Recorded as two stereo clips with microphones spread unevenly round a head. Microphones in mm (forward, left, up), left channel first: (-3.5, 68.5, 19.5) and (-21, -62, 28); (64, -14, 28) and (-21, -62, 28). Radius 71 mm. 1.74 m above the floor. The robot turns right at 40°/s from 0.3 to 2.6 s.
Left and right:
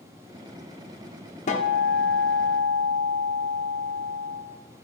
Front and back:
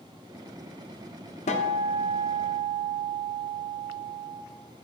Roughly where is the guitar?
Ahead left.